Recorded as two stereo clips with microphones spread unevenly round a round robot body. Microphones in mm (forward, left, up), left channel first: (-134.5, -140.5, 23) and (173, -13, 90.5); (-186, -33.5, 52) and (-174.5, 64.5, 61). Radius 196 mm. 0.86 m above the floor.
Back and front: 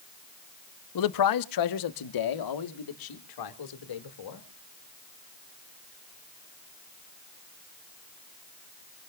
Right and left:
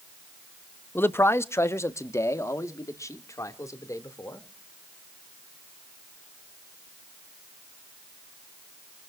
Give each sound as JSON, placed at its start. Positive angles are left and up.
{"t": 0.9, "sound": "a man speaking", "azimuth_deg": -165, "distance_m": 0.9}